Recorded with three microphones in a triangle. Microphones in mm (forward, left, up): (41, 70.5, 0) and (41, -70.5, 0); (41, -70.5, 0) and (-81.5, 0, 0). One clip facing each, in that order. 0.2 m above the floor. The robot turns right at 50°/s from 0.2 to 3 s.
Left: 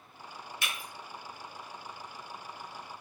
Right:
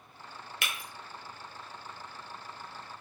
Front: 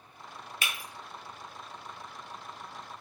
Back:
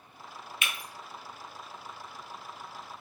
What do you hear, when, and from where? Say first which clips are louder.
0.6 s breaking glass: right 1 dB, even; 85° right, 0.6 m; by 0.8 s 75° right, 0.6 m